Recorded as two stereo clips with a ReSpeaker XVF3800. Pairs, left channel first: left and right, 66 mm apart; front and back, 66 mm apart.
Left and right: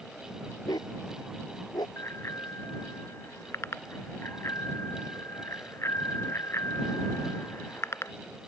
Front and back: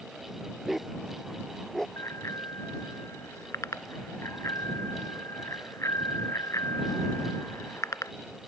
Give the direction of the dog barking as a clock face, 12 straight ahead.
9 o'clock.